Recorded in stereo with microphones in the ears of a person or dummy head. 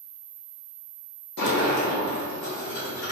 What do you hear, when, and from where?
1.4 s a sliding door: 55° left (ahead or behind), 1.1 m